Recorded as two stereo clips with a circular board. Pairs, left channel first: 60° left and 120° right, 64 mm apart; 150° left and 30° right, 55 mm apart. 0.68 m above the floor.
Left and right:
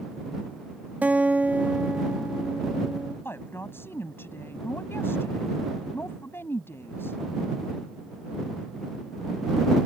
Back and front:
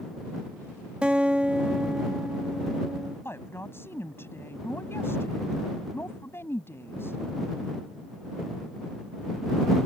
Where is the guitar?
80° right.